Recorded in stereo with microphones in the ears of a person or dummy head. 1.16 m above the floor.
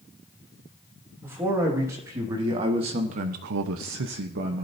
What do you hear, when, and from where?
1.2 s a man speaking: 15° right (ahead or behind), 3 m; by 4.7 s 40° right (ahead or behind), 1.1 m